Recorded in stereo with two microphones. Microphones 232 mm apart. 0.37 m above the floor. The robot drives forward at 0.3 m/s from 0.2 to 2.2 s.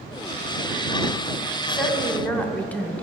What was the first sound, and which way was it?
A woman speaking, 5° left (ahead or behind).